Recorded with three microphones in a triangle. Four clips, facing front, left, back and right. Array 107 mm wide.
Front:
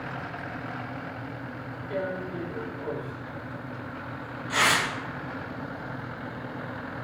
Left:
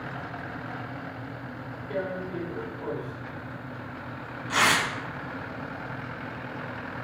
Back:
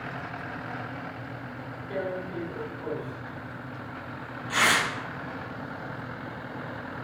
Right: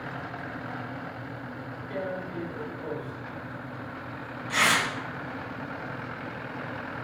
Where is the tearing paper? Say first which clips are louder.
Left 2 dB, front 1 dB; 90° left, 2.5 m.